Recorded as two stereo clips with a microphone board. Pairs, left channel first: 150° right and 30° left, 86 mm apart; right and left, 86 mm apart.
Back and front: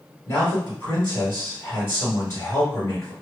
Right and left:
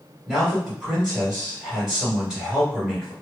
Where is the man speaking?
165° left, 1.9 m.